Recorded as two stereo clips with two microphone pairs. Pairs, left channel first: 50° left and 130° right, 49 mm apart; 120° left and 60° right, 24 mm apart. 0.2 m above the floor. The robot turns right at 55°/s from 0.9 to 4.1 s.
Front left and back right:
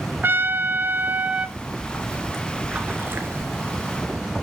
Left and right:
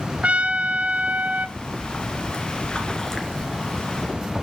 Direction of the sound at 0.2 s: 90° right.